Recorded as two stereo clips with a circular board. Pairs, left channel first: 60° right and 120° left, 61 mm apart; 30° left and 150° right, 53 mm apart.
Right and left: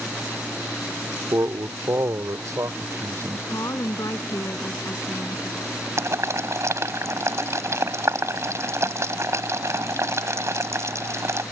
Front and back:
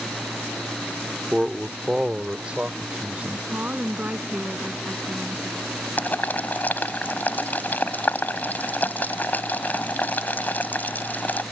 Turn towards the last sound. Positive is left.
turn(degrees=85)